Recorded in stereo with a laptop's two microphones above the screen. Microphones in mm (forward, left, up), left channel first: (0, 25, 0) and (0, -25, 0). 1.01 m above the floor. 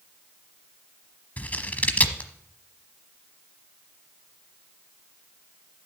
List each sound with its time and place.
1.4 s scissors: 30° left (ahead or behind), 1.0 m